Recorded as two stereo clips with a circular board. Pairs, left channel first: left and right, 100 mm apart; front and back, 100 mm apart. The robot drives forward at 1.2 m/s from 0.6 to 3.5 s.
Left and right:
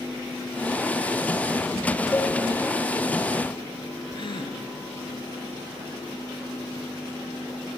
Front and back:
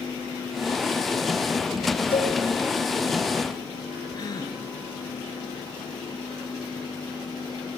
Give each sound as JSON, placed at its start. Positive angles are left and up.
{"t": 2.1, "sound": "a cowbell", "azimuth_deg": 20, "distance_m": 2.5}
{"t": 4.1, "sound": "a gasp", "azimuth_deg": 50, "distance_m": 3.0}